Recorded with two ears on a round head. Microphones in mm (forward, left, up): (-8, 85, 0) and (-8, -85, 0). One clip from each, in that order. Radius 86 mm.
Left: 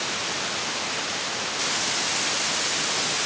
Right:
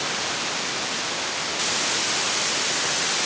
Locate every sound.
Only background noise.